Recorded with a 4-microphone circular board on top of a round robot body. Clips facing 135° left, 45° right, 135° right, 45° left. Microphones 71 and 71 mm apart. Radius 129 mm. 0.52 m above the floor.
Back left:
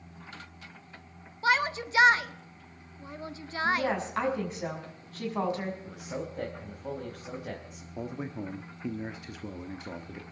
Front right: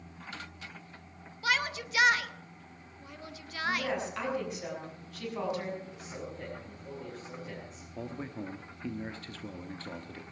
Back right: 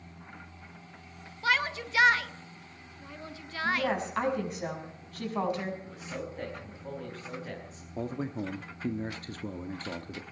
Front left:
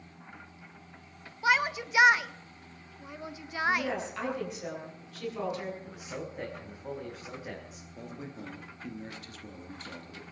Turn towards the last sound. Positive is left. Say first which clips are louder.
# back left 3 dB, back right 9 dB
turn(degrees=-155)